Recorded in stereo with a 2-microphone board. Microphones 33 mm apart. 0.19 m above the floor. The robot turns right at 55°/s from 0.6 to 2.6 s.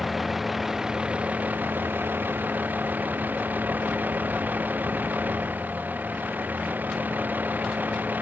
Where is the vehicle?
175° right; by 8.2 s 65° right.